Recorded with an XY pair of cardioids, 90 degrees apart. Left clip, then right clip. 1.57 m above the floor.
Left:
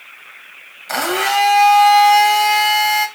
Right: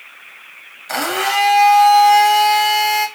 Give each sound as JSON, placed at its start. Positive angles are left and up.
{"t": 0.9, "sound": "a blender", "azimuth_deg": 15, "distance_m": 0.8}